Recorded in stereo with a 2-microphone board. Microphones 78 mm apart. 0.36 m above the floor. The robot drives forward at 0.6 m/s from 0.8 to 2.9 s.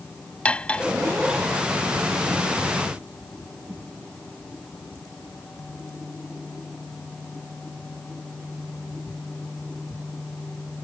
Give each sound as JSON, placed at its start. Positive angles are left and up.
{"t": 0.5, "sound": "cutlery clinking", "side_deg": 15}